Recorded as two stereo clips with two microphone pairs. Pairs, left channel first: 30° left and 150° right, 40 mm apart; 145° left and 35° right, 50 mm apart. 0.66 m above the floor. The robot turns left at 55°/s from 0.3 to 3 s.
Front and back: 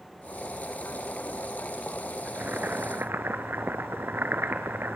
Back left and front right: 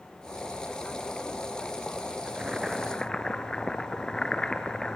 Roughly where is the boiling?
Right.